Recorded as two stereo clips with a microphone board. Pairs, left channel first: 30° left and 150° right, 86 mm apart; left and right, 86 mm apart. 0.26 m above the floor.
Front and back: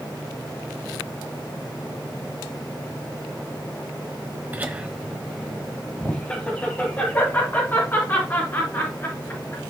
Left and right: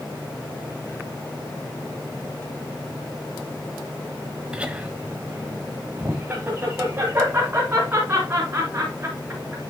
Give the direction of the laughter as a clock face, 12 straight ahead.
5 o'clock.